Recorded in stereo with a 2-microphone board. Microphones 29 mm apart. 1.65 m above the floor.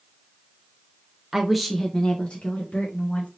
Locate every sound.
1.3 s a woman speaking: 15° right (ahead or behind), 0.6 m; by 3.3 s 55° left (ahead or behind), 1.2 m